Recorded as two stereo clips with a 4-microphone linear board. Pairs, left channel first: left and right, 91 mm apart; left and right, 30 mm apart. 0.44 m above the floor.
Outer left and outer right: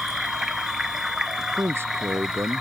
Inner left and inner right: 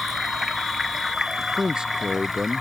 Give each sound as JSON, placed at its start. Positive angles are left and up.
{"t": 0.0, "sound": "running water", "side_deg": -5}
{"t": 1.4, "sound": "a man speaking", "side_deg": -25}